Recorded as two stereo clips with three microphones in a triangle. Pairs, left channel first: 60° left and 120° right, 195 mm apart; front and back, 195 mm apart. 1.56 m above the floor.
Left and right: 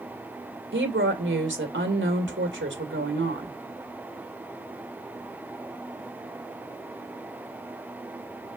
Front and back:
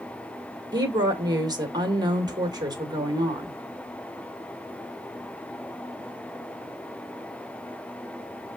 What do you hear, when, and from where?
0.7 s a woman speaking: 110° right, 2 m